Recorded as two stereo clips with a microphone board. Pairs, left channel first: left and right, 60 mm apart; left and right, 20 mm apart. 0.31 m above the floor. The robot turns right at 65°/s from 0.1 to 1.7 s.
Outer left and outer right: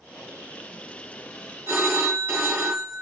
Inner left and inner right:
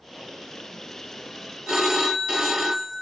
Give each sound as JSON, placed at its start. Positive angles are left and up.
{"t": 1.7, "sound": "a phone ringing", "side_deg": -40, "distance_m": 1.1}